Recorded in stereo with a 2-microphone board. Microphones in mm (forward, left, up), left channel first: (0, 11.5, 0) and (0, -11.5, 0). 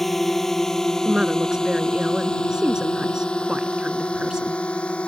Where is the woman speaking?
25° right (ahead or behind).